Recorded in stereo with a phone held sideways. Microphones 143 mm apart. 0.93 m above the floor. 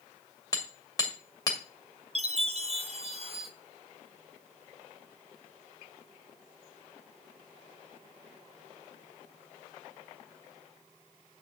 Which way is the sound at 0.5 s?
25° left (ahead or behind).